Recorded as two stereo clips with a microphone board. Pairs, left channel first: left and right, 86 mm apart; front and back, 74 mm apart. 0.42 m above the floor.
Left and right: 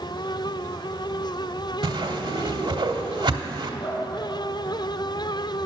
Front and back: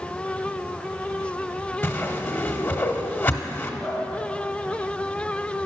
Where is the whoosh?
65° right, 0.8 m.